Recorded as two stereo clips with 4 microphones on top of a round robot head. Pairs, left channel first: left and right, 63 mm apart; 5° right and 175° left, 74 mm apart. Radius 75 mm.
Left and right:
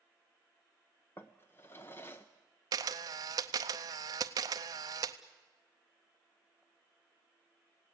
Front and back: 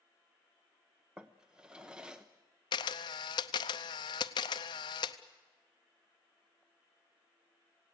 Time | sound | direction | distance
1.2 | a drawer | 105° left | 0.8 m
2.7 | a camera shutter | 45° right | 0.6 m